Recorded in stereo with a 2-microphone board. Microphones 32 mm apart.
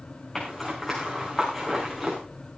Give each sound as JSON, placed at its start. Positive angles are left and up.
{"t": 0.3, "sound": "a zipper", "side_deg": 10, "distance_m": 6.0}